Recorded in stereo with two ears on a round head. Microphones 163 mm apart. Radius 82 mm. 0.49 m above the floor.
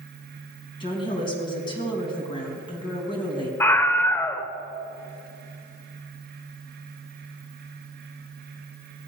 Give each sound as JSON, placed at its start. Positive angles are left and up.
{"t": 0.8, "sound": "a woman speaking", "side_deg": 30, "distance_m": 4.0}
{"t": 3.6, "sound": "a scream", "side_deg": 15, "distance_m": 1.2}